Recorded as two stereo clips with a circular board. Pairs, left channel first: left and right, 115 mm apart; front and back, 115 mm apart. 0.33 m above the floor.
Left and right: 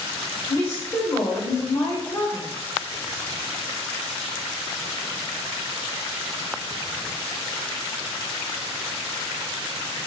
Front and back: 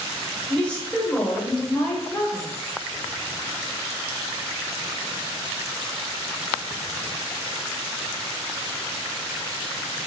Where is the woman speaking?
65° left, 0.9 m.